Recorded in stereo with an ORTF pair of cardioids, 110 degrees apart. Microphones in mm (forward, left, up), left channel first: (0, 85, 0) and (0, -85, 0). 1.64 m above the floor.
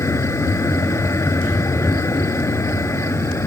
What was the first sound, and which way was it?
A vehicle, 15° left.